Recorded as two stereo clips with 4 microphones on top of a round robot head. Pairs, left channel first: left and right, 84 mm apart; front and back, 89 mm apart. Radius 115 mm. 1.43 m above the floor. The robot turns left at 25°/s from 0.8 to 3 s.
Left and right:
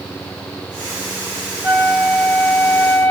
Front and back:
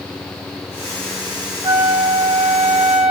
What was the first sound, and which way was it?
A flute, 165° right.